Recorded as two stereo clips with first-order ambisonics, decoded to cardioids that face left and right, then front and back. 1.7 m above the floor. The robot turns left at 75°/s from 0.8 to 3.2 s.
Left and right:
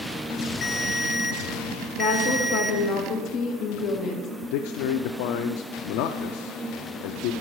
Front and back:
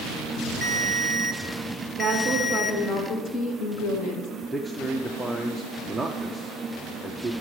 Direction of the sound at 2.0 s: 140° left.